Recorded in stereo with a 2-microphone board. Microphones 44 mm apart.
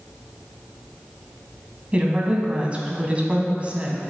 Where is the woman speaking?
30° right (ahead or behind), 1.4 m.